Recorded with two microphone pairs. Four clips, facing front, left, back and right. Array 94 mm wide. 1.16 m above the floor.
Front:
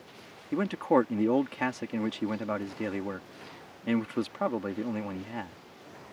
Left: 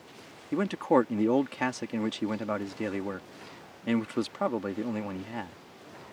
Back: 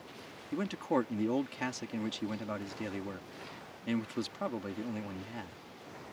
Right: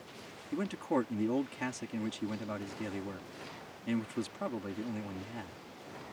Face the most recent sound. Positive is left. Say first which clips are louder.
# left 8 dB, front 7 dB
turn(degrees=55)